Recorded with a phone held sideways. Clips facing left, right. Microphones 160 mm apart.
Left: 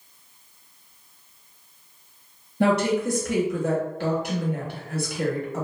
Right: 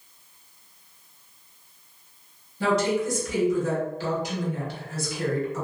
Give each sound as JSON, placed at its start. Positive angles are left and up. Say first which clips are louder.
{"t": 2.6, "sound": "a woman speaking", "louder": "left 2 dB", "side_deg": 60, "distance_m": 0.9}